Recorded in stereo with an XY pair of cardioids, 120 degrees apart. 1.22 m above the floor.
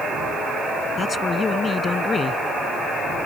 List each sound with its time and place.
1.0 s a man speaking: 30° left